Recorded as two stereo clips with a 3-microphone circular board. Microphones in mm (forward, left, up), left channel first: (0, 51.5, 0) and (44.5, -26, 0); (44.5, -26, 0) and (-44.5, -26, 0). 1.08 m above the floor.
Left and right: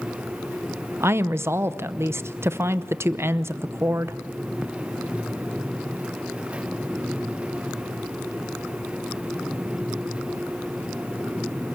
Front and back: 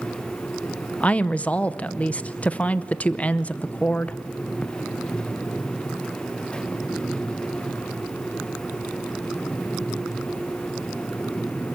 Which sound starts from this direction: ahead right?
A woman speaking, at 1.0 s.